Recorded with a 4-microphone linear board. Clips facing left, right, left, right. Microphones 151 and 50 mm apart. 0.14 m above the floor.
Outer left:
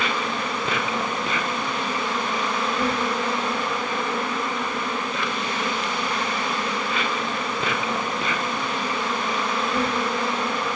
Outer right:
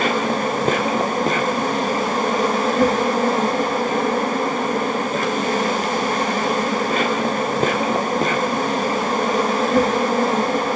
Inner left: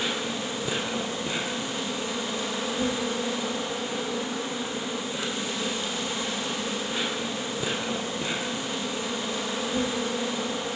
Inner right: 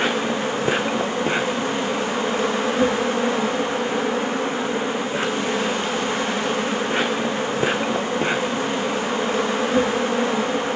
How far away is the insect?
About 2 m.